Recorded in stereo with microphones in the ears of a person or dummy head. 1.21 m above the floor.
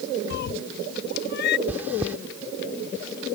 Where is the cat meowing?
60° left (ahead or behind).